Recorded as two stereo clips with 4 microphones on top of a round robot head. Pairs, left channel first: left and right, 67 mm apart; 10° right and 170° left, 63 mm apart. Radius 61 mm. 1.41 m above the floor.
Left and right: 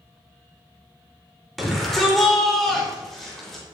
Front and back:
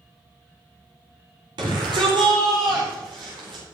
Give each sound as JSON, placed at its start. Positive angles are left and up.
{"t": 1.6, "sound": "a shout", "azimuth_deg": 180, "distance_m": 4.5}